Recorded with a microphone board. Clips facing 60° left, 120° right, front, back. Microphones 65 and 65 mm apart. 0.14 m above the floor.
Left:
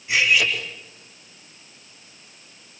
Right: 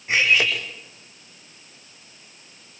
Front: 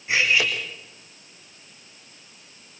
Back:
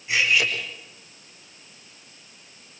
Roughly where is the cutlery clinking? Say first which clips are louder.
Even, front 1 dB; ahead right.